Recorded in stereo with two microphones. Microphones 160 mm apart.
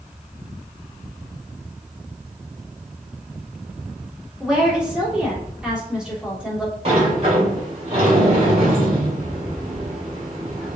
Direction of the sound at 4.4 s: 5° right (ahead or behind).